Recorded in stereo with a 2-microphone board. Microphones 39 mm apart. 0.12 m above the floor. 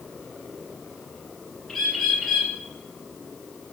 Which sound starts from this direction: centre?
A bird, at 1.7 s.